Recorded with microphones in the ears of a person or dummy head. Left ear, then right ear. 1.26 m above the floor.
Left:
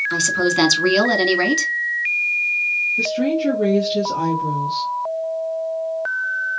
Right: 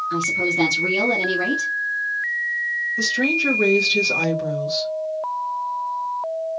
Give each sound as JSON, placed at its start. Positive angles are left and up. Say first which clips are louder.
{"t": 0.1, "sound": "a woman speaking", "louder": "even", "side_deg": 70, "distance_m": 2.0}
{"t": 3.0, "sound": "a woman speaking", "louder": "even", "side_deg": -50, "distance_m": 1.5}